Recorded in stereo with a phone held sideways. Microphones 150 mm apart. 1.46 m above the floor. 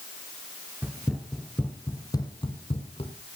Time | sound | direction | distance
0.8 | running footsteps | 10° right (ahead or behind) | 1.6 m